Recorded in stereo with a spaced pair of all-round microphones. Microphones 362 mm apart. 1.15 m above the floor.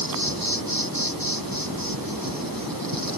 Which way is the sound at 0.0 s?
65° right (ahead or behind).